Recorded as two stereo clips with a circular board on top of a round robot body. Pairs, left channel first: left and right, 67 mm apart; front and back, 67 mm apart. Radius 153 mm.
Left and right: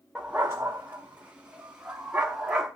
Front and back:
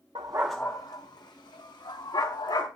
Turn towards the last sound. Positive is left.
turn(degrees=-15)